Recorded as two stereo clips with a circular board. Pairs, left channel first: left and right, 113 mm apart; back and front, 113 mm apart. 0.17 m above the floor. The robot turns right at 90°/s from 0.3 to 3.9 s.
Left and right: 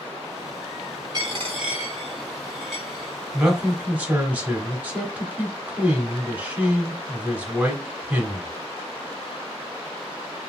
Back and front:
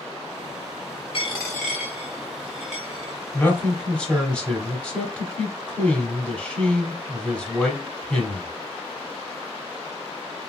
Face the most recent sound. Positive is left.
turn(degrees=-120)